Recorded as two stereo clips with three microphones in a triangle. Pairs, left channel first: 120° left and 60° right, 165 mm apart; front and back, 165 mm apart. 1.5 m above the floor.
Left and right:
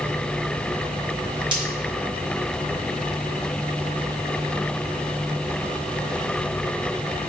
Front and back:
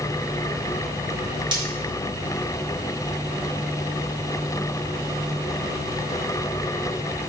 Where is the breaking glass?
120° right, 3.5 m.